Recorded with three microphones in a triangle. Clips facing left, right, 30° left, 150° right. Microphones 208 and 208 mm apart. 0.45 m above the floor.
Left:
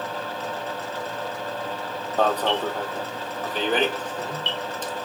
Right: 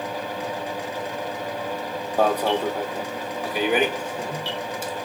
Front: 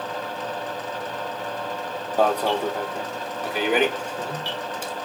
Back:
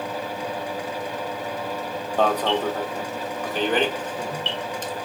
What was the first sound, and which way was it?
An alarm, 30° right.